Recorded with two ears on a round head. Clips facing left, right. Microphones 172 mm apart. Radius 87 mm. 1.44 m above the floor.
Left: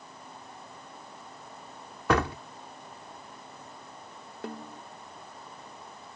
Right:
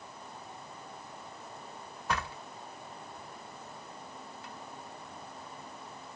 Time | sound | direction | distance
2.1 | a door slam | 50° left (ahead or behind) | ?
4.4 | a snare drum | 45° left (ahead or behind) | ?